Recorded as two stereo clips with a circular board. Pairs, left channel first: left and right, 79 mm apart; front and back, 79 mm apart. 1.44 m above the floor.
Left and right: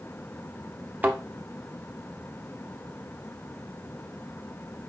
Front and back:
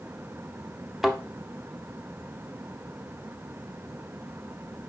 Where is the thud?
105° right, 0.7 m.